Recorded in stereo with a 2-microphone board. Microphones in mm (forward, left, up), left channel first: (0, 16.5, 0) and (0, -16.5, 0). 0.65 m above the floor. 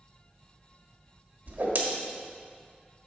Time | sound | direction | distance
1.5 | a whoosh | 60° right (ahead or behind) | 1.4 m